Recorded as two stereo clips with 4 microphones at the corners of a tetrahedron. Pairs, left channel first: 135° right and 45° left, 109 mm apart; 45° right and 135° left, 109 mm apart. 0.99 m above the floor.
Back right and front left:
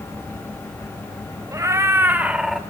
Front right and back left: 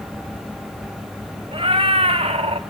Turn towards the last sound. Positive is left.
turn(degrees=135)